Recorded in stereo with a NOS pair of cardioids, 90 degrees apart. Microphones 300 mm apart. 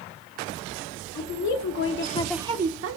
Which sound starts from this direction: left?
A woman speaking, at 1.1 s.